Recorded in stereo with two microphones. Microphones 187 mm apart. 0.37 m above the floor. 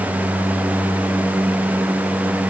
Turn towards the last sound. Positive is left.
No sound to turn to.